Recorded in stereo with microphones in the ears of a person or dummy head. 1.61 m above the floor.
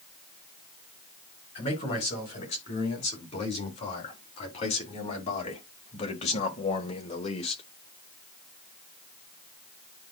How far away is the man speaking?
About 5.5 m.